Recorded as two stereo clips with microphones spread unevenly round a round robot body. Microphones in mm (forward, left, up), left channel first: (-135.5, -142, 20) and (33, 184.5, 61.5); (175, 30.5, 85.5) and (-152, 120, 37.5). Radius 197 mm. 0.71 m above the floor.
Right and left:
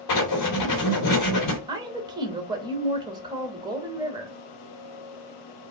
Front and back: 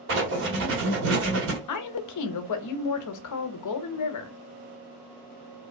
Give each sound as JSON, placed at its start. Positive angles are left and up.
{"t": 0.1, "sound": "writing", "azimuth_deg": -145, "distance_m": 1.4}
{"t": 1.7, "sound": "a woman speaking", "azimuth_deg": -20, "distance_m": 0.7}